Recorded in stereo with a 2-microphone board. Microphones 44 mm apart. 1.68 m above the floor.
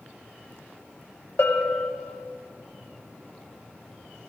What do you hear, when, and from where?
1.4 s a bell: 50° left (ahead or behind), 1.3 m